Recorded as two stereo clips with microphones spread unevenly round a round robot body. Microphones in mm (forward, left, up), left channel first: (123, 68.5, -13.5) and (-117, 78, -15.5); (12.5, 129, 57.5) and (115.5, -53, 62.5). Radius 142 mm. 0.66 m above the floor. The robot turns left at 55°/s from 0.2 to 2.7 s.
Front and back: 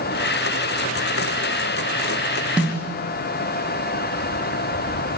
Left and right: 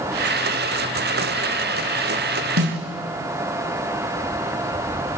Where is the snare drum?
95° right, 3 m; by 2.8 s 105° right, 3 m.